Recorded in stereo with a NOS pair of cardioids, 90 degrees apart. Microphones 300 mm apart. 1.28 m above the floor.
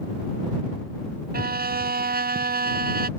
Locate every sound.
1.3 s a violin: 30° right